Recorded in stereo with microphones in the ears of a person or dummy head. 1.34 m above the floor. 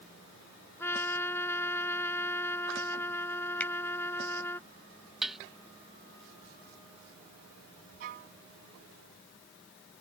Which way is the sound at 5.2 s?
Centre (ahead or behind).